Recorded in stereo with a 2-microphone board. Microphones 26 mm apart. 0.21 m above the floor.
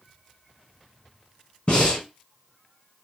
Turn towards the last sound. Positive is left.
turn(degrees=40)  # may be behind; listen again after turning